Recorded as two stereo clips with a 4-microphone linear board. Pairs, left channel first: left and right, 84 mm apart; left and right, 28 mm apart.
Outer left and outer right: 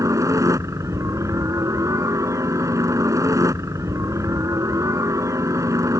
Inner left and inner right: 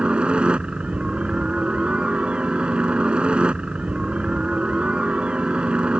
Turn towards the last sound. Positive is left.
turn(degrees=-40)  # may be behind; listen again after turning